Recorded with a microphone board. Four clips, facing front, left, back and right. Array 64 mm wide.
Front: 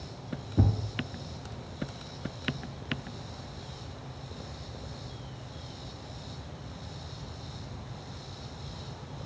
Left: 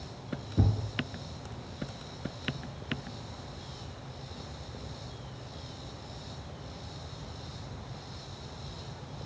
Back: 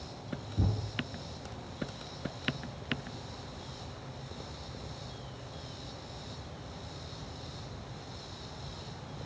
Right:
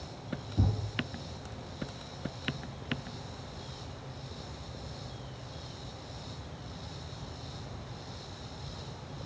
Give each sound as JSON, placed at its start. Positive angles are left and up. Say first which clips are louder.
{"t": 0.6, "sound": "a thud", "louder": "left 3 dB, front 6 dB", "azimuth_deg": 35, "distance_m": 2.5}